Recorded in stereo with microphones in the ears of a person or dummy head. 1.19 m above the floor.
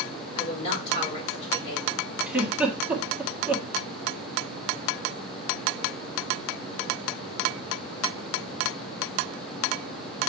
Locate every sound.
0.3 s a woman speaking: 35° left (ahead or behind), 5 m
2.3 s a giggle: 5° right (ahead or behind), 1.6 m